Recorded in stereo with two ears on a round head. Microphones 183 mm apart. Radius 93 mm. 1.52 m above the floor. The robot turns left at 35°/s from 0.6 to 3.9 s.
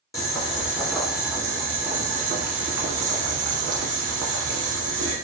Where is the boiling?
15° left, 1.1 m; by 5.2 s 100° right, 1.1 m.